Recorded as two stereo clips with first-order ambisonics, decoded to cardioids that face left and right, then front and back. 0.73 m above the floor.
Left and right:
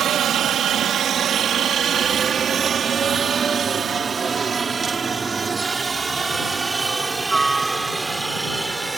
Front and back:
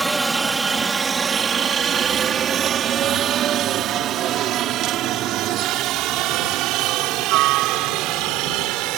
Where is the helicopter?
110° right; by 9.0 s 175° right.